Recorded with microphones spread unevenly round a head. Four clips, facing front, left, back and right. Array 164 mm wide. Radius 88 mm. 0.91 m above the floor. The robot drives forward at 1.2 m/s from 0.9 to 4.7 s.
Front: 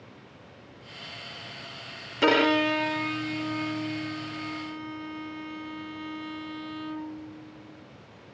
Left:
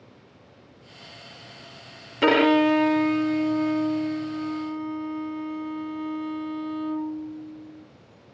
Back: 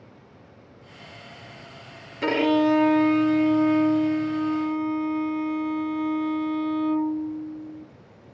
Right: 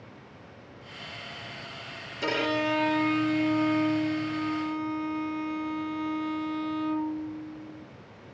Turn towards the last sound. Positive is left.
turn(degrees=175)